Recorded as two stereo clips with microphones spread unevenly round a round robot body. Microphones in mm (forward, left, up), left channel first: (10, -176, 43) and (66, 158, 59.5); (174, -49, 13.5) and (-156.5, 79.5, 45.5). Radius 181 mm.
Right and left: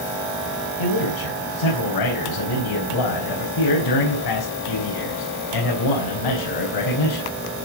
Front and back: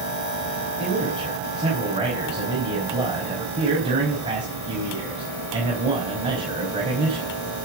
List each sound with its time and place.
0.8 s a man speaking: 125° right, 4.5 m